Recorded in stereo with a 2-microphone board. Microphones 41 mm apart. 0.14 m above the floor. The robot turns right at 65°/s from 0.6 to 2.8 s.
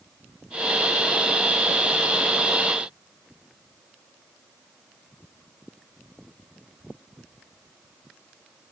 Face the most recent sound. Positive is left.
No sound to turn to.